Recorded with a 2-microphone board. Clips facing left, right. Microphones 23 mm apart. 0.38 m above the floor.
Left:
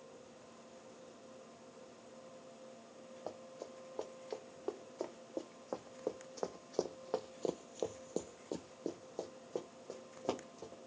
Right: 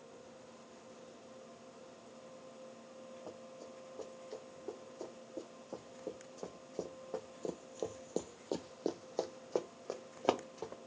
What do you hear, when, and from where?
3.3 s running footsteps: 80° left, 2.5 m; by 10.8 s 60° right (ahead or behind), 1.6 m